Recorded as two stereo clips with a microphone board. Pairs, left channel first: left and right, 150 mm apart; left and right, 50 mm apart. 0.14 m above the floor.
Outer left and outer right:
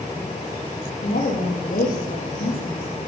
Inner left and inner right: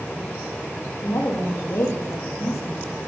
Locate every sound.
1.0 s a woman speaking: 75° left (ahead or behind), 5 m